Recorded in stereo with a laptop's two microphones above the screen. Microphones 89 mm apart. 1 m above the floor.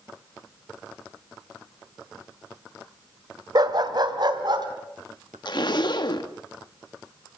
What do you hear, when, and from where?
3.5 s a dog barking: 50° right (ahead or behind), 1.5 m; by 4.7 s 55° right (ahead or behind), 3 m
5.5 s a zipper: 55° left (ahead or behind), 1.3 m